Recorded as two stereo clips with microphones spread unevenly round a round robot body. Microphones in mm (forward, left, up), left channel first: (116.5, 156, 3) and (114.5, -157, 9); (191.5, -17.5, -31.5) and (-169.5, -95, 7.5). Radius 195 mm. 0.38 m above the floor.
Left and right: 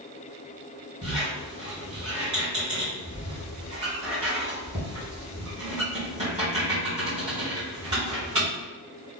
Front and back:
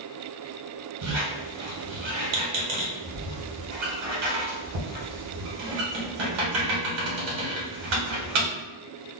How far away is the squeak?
About 1.6 m.